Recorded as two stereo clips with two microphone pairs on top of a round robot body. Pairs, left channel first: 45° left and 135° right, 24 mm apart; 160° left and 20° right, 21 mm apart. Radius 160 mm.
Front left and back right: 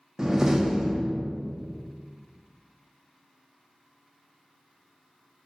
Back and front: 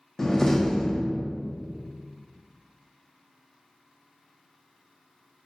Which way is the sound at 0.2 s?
165° right.